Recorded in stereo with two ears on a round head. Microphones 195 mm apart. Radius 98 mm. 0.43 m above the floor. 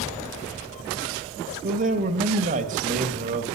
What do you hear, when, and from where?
1.6 s a man speaking: 35° right (ahead or behind), 2.5 m